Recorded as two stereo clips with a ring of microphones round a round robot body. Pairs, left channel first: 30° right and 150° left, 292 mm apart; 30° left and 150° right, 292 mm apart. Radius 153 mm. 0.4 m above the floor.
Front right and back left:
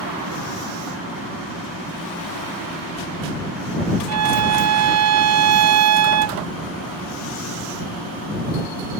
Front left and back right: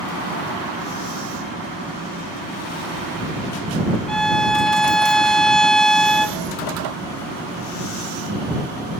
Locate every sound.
4.1 s a violin: 120° left